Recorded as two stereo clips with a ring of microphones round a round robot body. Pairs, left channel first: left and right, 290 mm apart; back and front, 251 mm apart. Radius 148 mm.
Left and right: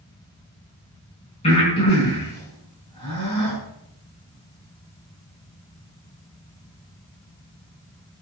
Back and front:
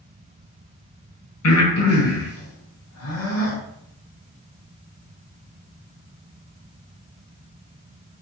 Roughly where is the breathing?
Behind.